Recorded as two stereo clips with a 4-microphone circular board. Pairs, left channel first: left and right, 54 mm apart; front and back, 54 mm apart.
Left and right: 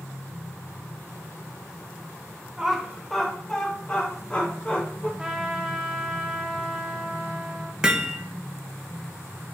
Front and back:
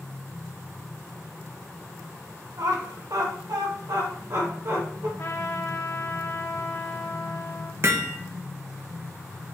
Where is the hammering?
160° right, 0.8 m.